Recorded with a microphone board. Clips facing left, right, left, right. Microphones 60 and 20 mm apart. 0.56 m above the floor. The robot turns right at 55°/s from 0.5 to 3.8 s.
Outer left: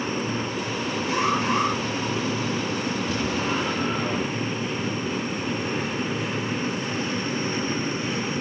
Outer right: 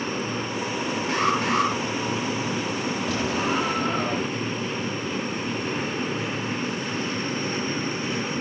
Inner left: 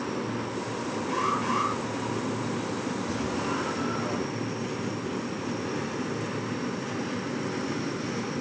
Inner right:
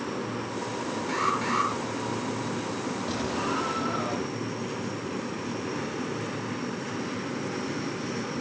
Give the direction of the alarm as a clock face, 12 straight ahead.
4 o'clock.